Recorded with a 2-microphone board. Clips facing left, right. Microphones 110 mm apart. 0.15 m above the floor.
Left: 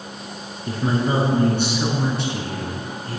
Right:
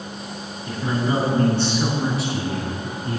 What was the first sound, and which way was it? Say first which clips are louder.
A man speaking: left 2 dB; 35° left (ahead or behind).